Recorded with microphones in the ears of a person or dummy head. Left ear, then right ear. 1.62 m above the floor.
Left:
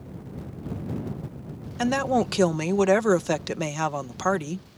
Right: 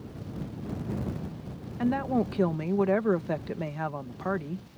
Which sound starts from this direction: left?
A woman speaking, at 1.8 s.